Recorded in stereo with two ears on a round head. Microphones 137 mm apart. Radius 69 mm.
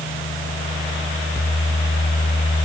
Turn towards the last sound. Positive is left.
No sound to turn to.